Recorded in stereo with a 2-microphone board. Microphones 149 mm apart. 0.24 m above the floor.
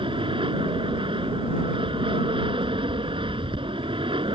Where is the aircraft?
35° right (ahead or behind).